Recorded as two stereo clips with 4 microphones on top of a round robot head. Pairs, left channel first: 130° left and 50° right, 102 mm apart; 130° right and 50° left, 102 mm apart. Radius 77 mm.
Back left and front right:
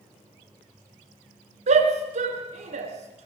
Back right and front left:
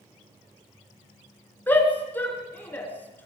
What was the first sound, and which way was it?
A shout, 55° right.